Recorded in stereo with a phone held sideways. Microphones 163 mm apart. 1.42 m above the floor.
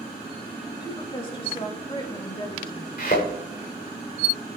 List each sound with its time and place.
0.8 s a woman speaking: 30° left (ahead or behind), 3 m
3.0 s a thud: 70° left (ahead or behind), 6.5 m